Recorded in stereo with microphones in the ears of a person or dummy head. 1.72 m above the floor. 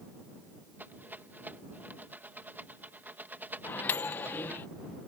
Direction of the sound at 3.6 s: 10° left (ahead or behind).